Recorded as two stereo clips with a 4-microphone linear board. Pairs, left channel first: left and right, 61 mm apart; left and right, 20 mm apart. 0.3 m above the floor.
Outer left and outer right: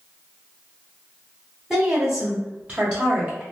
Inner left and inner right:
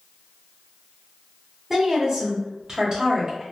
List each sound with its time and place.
1.7 s a woman speaking: 5° right (ahead or behind), 1.0 m; by 3.4 s 25° right (ahead or behind), 1.4 m